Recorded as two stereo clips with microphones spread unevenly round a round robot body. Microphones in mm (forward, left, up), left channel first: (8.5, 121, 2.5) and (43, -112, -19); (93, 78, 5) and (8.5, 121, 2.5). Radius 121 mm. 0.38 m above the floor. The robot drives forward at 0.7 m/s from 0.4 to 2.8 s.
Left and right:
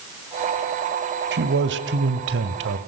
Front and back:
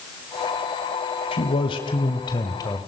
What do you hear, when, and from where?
1.3 s a man speaking: 50° right, 1.9 m; by 2.8 s 90° right, 1.6 m